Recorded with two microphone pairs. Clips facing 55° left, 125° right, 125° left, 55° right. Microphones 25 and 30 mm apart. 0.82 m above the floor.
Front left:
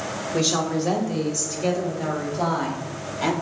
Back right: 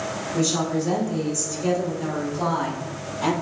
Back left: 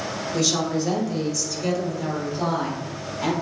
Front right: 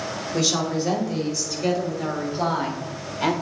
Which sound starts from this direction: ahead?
A woman speaking, at 0.3 s.